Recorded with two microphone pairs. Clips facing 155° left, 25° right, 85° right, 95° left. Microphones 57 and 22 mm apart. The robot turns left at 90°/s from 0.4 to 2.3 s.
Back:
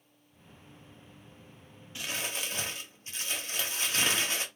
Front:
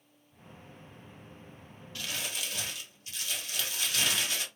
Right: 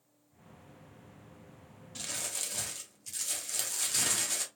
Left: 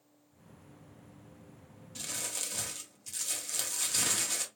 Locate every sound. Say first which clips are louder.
1.9 s crumpling: back 2 dB, even; 150° right, 1.3 m; by 4.5 s straight behind, 1.3 m